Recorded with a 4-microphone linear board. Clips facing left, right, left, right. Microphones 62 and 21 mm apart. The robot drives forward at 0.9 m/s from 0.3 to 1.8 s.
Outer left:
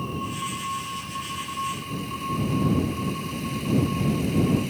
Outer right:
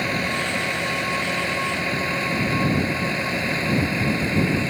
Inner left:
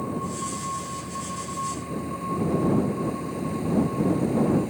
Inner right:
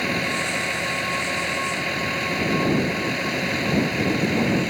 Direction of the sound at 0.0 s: 80° right.